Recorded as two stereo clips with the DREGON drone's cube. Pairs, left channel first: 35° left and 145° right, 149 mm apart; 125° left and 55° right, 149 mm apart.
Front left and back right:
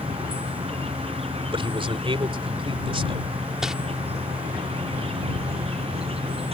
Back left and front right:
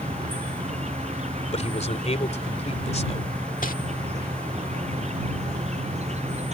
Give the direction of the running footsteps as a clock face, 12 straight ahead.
I don't hear running footsteps.